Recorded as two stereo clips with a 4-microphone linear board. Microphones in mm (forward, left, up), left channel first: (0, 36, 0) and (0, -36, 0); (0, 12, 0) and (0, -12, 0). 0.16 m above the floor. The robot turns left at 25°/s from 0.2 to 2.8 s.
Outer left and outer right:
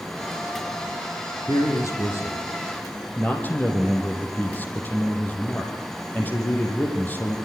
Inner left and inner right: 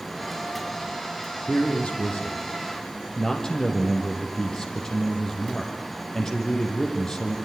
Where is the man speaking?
60° left, 6.5 m; by 7.3 s 25° left, 6.5 m.